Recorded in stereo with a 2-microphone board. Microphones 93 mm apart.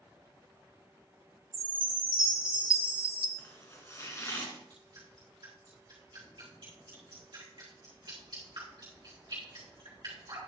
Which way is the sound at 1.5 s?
60° right (ahead or behind).